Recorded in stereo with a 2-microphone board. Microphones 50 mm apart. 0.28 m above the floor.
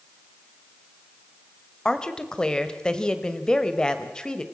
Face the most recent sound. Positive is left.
turn(degrees=15)  # may be behind; listen again after turning